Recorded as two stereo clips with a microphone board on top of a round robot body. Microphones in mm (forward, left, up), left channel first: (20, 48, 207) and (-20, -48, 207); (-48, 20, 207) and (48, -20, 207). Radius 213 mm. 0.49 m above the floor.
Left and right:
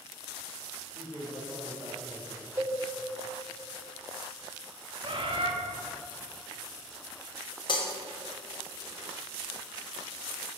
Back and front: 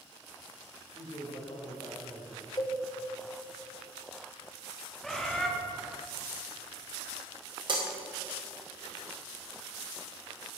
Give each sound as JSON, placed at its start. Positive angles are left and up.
{"t": 0.9, "sound": "a man speaking", "azimuth_deg": 175, "distance_m": 3.0}
{"t": 2.6, "sound": "a cowbell", "azimuth_deg": -165, "distance_m": 1.5}
{"t": 5.0, "sound": "a bird", "azimuth_deg": -115, "distance_m": 1.5}
{"t": 7.7, "sound": "breaking glass", "azimuth_deg": 25, "distance_m": 1.4}